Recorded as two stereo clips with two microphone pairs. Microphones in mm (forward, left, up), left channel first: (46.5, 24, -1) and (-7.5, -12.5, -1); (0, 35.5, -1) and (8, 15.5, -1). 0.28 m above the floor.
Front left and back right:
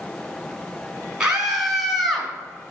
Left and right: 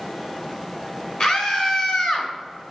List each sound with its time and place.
1.2 s a scream: 140° left, 3 m; by 2.3 s 120° left, 2.5 m